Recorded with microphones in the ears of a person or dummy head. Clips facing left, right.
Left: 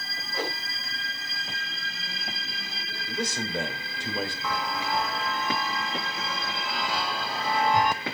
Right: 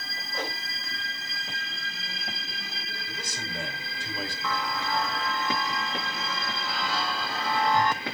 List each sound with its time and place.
0.3 s a whoosh: 5° left (ahead or behind), 7 m
3.1 s a man speaking: 50° left (ahead or behind), 3.5 m
4.4 s a chime: 10° left (ahead or behind), 0.9 m